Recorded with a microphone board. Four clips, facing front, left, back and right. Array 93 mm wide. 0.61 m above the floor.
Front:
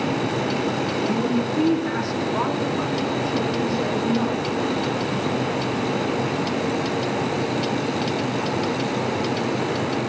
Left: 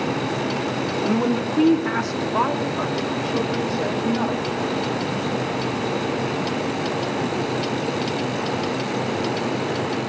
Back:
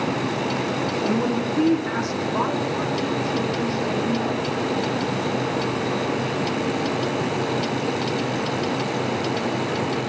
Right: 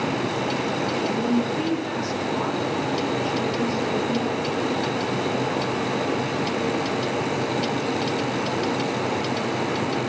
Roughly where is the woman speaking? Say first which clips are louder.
Left 3 dB, even; behind left.